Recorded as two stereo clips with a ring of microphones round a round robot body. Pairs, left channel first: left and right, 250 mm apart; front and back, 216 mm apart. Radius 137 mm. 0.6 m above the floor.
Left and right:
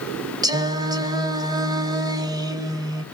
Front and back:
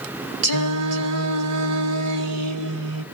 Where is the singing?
165° right, 1.3 m.